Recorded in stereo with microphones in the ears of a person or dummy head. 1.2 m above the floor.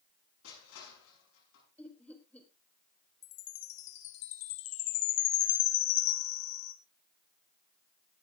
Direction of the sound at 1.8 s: 5° left (ahead or behind).